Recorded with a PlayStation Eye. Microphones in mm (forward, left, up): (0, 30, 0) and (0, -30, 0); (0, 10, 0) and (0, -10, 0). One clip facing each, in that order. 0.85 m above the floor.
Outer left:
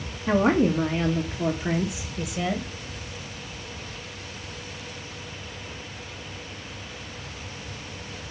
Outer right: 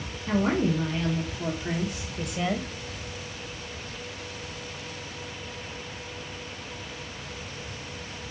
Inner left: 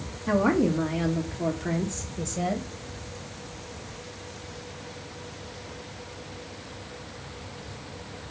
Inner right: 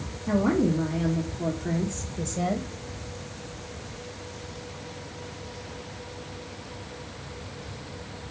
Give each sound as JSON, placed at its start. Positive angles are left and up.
{"t": 0.3, "sound": "a woman speaking", "side_deg": 50, "distance_m": 1.4}